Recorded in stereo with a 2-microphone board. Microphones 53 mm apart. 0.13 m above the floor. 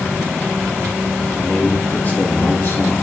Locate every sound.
1.4 s a man speaking: 15° left (ahead or behind), 1.2 m; by 2.9 s 50° left (ahead or behind), 1.9 m